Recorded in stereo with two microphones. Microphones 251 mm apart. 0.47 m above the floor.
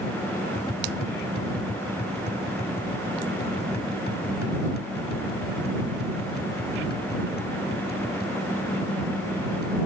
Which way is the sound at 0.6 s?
40° left (ahead or behind).